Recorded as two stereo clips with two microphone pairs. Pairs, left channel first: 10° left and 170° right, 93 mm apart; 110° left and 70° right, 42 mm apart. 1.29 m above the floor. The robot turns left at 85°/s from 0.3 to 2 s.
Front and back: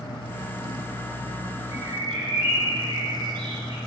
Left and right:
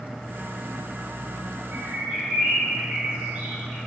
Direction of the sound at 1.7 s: 105° right.